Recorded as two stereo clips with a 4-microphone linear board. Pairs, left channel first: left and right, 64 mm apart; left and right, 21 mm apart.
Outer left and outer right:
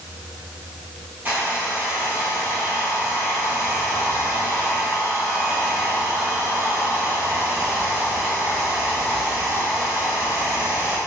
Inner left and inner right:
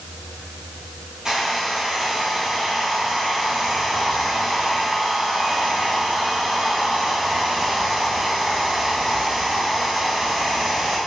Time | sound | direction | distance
1.2 | a hair dryer | 25° right (ahead or behind) | 1.7 m